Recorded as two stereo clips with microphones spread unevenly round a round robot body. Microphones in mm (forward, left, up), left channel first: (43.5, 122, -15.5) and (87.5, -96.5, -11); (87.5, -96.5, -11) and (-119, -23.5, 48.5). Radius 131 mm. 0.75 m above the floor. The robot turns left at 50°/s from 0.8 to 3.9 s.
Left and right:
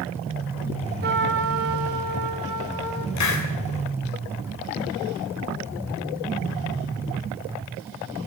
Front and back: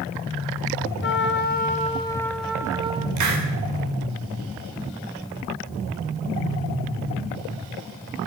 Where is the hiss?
130° left, 3.5 m; by 3.5 s 115° left, 3.5 m.